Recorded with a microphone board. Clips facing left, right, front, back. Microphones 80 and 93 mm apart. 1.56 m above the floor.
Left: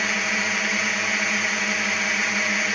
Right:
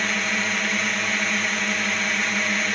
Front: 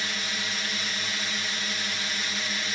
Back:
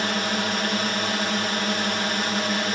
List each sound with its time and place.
0.0 s a drone: 175° left